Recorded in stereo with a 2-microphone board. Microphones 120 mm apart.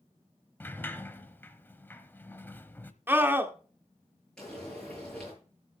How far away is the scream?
About 1.4 m.